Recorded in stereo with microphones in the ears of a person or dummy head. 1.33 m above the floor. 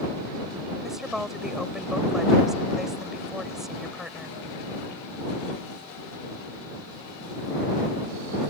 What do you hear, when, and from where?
0.8 s a woman speaking: centre (ahead or behind)